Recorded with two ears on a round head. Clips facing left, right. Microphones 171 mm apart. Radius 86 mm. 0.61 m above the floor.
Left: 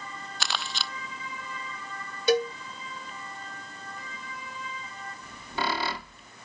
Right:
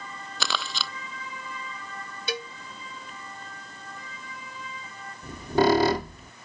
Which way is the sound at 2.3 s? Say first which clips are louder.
Left 11 dB; 40° left (ahead or behind).